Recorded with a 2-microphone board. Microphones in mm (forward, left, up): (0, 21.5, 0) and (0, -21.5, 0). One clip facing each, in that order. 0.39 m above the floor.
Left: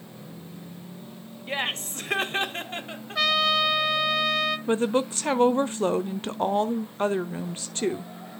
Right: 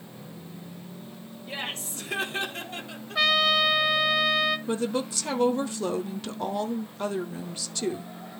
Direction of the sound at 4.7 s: 40° left (ahead or behind).